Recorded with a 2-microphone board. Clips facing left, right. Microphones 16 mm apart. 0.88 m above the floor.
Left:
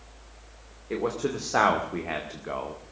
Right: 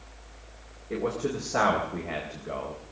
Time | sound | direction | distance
0.9 | a man speaking | 65° left (ahead or behind) | 2 m